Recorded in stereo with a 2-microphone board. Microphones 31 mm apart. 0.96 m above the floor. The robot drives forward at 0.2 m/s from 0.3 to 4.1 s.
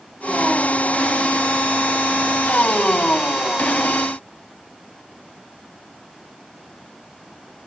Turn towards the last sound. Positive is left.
No sound to turn to.